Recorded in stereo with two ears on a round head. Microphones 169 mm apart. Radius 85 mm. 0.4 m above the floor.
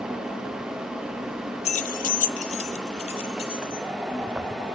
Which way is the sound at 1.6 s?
35° left (ahead or behind).